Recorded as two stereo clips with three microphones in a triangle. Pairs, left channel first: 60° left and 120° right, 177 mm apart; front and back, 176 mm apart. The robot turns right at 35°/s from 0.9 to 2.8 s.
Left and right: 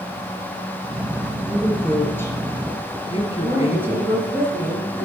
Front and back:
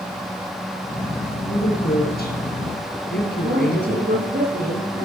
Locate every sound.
1.4 s a woman speaking: 45° right, 3 m; by 4.2 s 5° left, 3 m
3.4 s a woman speaking: 165° left, 3.5 m